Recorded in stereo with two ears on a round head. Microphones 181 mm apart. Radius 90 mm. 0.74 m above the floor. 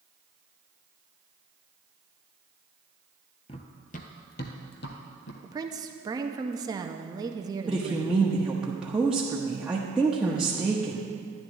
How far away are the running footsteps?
About 0.9 m.